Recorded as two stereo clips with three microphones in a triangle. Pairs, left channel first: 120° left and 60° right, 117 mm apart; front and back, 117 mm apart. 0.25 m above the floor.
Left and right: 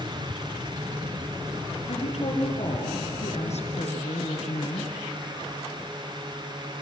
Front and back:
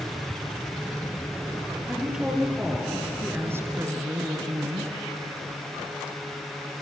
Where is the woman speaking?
95° left, 5.5 m; by 4.9 s 150° left, 2.5 m.